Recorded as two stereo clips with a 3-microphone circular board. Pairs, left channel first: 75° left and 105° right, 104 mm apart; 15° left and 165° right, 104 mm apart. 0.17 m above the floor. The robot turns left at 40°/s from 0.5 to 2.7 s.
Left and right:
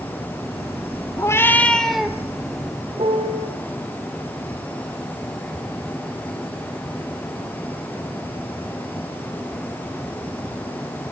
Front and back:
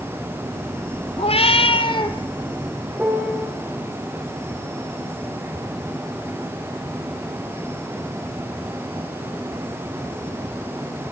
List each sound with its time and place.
1.2 s a cat meowing: 15° left, 1.4 m; by 2.2 s 25° right, 1.4 m
3.0 s a piano: 90° right, 4.5 m